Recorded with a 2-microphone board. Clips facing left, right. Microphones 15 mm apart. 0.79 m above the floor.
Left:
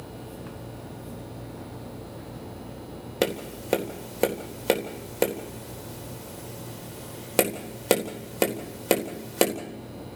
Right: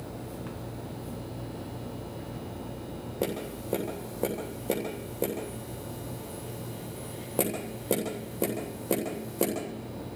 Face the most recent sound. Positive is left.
turn(degrees=70)  # may be behind; listen again after turning